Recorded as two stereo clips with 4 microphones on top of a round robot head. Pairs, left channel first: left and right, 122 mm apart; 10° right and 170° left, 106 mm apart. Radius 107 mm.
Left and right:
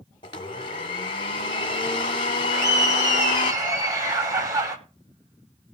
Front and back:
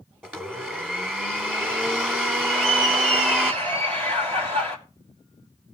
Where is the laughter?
155° right, 5.5 m.